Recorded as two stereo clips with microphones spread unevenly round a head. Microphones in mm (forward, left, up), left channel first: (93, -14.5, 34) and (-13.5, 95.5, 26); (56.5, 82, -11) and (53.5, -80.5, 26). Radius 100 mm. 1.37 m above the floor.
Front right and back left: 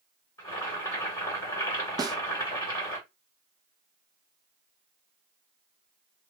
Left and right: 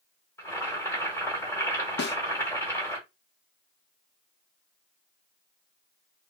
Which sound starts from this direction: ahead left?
A snare drum, at 2.0 s.